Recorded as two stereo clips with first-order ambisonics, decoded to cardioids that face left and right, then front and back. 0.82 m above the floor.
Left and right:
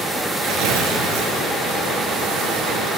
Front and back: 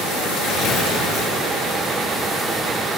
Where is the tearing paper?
60° right, 6 m.